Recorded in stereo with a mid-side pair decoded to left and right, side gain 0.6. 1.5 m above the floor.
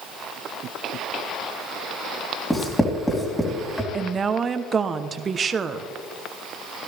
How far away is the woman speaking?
About 1.1 m.